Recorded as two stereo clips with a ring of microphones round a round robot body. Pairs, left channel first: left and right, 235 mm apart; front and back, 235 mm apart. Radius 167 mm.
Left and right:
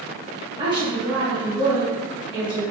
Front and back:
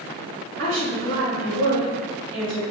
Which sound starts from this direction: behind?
A woman speaking, at 0.6 s.